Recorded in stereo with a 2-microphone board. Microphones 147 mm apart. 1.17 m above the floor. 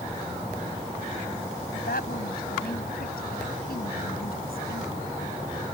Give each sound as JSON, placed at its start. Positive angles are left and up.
{"t": 1.7, "sound": "a woman speaking", "side_deg": 75}